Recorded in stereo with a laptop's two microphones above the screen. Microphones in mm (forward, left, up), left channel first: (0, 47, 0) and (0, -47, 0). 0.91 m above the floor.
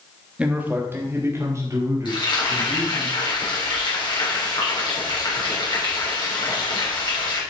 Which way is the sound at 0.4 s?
10° right (ahead or behind).